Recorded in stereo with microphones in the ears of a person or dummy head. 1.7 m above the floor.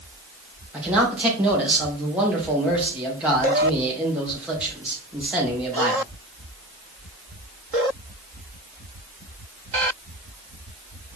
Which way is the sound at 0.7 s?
10° right (ahead or behind).